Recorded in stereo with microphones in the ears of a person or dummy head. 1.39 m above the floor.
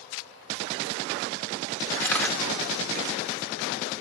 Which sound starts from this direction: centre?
A camera shutter, at 2.0 s.